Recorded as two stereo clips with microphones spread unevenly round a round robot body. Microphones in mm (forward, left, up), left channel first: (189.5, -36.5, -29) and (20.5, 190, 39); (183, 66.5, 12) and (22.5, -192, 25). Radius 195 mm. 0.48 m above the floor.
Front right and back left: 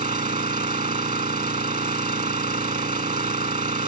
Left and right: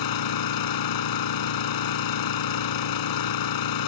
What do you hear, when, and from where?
0.0 s an engine running: 60° left